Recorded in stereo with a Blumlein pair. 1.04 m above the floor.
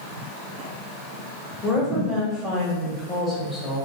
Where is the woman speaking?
5° left, 1.1 m.